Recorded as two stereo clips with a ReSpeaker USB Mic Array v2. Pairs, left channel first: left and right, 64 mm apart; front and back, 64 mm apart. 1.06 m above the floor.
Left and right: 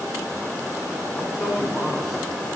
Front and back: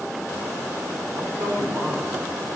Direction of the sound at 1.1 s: 115° left.